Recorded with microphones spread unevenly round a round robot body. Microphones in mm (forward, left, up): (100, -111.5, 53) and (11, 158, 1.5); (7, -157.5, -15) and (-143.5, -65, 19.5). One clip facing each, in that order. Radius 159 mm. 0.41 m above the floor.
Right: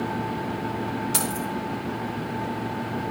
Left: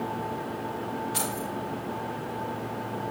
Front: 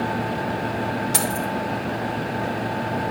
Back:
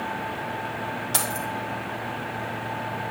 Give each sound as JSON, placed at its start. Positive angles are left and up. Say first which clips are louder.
{"t": 1.1, "sound": "keys jangling", "louder": "right 4 dB, front 6 dB", "azimuth_deg": -105, "distance_m": 1.8}